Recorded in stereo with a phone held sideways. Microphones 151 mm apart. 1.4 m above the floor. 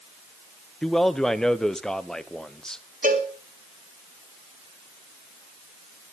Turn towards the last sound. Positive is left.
turn(degrees=-60)  # may be behind; listen again after turning